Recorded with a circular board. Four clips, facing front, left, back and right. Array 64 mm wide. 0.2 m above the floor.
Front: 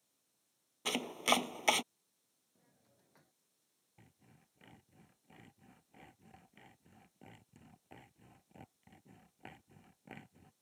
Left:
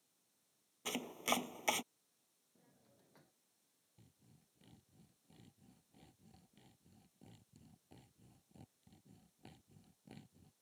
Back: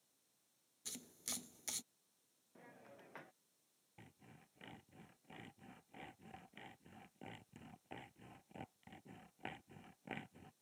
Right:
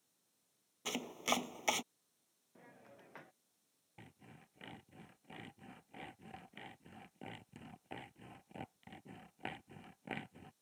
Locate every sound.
0.8 s chopping: 5° right
2.5 s a hiss: 130° right
4.0 s sawing: 100° right